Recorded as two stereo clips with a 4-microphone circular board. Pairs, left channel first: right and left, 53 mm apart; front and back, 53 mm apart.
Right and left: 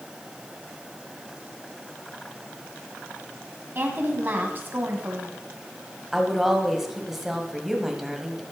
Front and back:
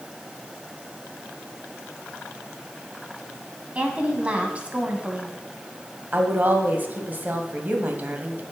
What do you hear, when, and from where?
3.8 s a woman speaking: 120° left, 2.0 m
6.1 s a woman speaking: 170° left, 1.7 m